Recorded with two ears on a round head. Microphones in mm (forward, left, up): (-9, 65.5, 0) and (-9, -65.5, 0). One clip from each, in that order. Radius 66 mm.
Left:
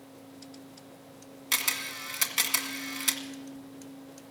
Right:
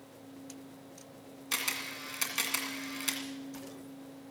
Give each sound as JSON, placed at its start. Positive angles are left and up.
{"t": 1.5, "sound": "a camera shutter", "side_deg": 25, "distance_m": 1.9}